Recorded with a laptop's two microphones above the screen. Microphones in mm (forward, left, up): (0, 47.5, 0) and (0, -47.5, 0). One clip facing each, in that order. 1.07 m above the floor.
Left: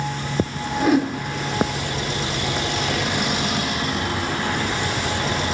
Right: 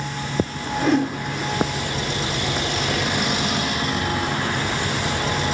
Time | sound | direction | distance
0.8 | a whoosh | 5° left (ahead or behind) | 1.5 m